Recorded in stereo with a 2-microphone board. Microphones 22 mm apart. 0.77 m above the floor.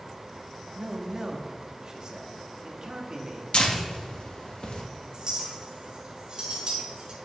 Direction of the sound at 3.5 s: 45° left (ahead or behind).